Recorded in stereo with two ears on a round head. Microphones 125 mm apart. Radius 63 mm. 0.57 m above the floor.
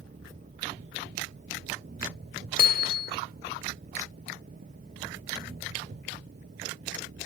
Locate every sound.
0.0 s an engine running: 55° right (ahead or behind)
2.6 s hammering: 65° left (ahead or behind)